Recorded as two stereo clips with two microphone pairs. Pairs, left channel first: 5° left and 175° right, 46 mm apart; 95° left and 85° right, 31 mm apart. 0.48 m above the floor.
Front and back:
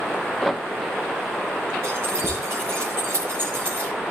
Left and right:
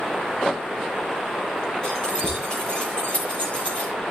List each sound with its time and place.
1.8 s keys jangling: 155° left, 9.5 m; by 3.9 s 145° left, 9 m